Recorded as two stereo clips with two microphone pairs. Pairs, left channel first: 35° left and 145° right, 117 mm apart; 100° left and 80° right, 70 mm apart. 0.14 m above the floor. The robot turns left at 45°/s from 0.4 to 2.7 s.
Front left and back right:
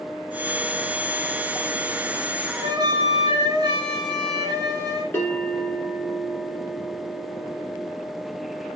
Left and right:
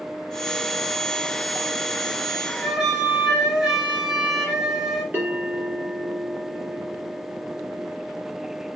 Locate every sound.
2.6 s a flute: 150° right, 1.8 m; by 5.0 s 155° right, 1.8 m
5.1 s a bell: 30° right, 2 m